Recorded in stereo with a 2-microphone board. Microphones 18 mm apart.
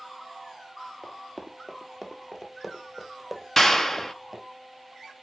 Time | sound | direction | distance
1.0 | running footsteps | 20° left (ahead or behind) | 1.7 m
3.6 | a clap | 20° left (ahead or behind) | 0.8 m